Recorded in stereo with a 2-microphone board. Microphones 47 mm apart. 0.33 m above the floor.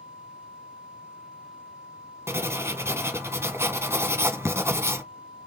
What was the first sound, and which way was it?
Writing, 70° right (ahead or behind).